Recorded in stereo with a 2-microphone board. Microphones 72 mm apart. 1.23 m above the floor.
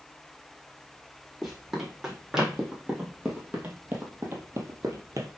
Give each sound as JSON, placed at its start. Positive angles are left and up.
{"t": 1.4, "sound": "running footsteps", "side_deg": 0, "distance_m": 3.5}